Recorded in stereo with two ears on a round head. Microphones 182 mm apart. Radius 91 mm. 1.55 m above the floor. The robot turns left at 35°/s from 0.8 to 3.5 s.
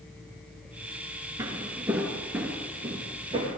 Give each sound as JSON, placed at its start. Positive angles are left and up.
{"t": 1.4, "sound": "footsteps", "side_deg": -15, "distance_m": 1.5}